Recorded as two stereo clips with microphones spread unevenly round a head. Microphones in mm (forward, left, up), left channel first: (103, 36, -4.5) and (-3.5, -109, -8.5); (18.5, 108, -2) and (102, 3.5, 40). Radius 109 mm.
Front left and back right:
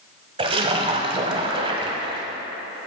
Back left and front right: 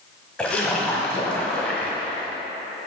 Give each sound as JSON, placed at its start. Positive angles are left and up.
{"t": 0.4, "sound": "a splash", "azimuth_deg": -115, "distance_m": 1.2}